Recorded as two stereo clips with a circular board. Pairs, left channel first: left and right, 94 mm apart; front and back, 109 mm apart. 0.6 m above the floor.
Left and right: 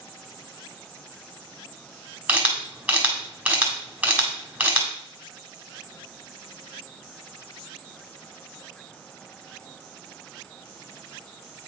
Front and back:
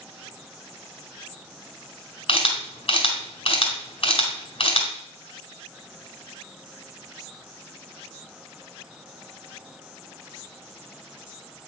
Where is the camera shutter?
15° right, 1.9 m.